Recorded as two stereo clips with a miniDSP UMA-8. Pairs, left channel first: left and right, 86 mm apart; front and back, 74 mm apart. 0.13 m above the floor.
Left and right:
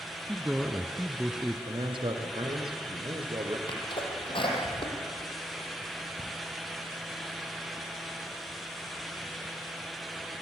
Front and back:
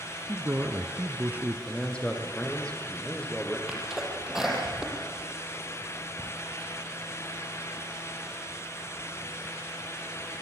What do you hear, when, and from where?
0.3 s a man speaking: 160° right, 1.3 m
1.7 s a man speaking: 75° right, 4 m
3.7 s a sneeze: 95° left, 5.5 m